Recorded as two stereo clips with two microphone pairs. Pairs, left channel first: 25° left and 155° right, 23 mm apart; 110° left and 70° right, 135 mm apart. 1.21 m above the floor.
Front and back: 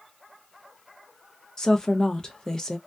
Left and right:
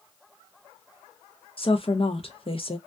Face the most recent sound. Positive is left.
turn(degrees=80)